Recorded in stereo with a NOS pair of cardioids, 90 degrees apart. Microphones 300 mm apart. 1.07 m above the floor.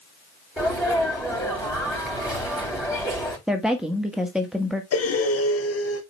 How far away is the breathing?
About 2.5 m.